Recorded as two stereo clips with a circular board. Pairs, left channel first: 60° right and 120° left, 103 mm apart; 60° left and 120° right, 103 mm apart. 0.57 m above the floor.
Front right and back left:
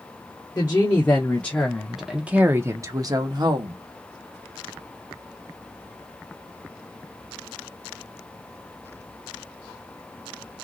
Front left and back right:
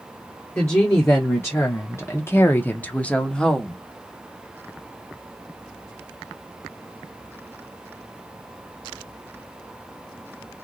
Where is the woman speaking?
Straight ahead, 1.1 m; by 3.8 s 145° left, 1.0 m.